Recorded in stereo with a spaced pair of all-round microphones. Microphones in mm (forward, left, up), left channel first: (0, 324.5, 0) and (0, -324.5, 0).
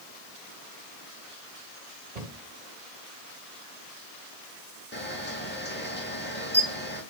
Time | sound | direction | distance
2.1 | a cupboard door | 75° right (ahead or behind) | 2 m
4.9 | a camera shutter | 15° left (ahead or behind) | 2.5 m